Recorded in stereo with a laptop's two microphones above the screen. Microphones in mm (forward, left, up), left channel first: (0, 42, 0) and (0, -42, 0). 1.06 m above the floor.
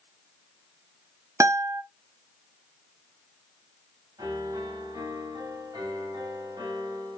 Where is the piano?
55° right (ahead or behind), 4 m.